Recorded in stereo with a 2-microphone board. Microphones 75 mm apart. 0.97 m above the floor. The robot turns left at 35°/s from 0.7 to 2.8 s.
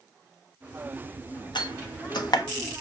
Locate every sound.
1.6 s a door slam: 80° left, 0.9 m; by 2.5 s 55° left (ahead or behind), 0.9 m